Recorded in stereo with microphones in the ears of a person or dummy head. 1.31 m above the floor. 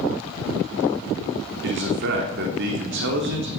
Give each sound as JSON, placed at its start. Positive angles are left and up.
{"t": 1.6, "sound": "a man speaking", "side_deg": -60, "distance_m": 2.5}